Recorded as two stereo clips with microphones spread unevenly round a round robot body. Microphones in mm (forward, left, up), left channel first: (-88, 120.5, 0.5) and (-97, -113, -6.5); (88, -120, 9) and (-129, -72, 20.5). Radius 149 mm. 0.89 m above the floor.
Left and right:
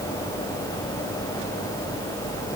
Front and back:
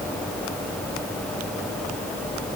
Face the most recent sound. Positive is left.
No sound to turn to.